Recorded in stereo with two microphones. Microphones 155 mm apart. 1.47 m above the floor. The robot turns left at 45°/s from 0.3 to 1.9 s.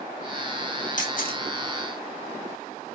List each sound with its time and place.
1.0 s a camera shutter: 55° left (ahead or behind), 1.9 m; by 1.4 s 70° left (ahead or behind), 1.9 m